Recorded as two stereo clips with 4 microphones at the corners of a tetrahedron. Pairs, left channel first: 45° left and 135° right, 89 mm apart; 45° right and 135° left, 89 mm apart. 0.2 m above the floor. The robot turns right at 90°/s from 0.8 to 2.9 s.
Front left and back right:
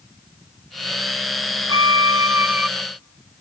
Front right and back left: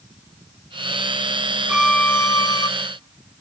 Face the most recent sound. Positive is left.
turn(degrees=-30)